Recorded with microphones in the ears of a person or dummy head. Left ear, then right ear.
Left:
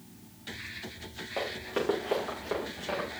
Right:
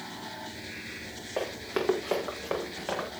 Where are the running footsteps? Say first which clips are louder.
Right 1 dB; 15° right (ahead or behind), 5 m; by 3.1 s 25° right (ahead or behind), 6 m.